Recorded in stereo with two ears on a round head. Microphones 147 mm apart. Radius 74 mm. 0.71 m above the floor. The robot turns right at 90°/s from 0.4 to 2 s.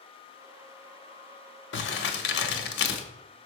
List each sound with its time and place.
1.7 s crumpling: 75° left (ahead or behind), 1.0 m